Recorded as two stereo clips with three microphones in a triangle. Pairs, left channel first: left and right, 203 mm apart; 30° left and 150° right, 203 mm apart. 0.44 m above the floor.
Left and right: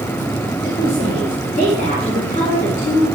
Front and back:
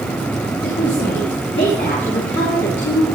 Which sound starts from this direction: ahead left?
A woman speaking, at 0.6 s.